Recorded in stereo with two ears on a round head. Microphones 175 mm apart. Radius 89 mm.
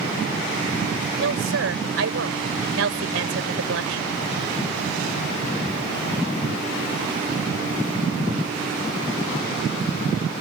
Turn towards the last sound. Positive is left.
turn(degrees=-80)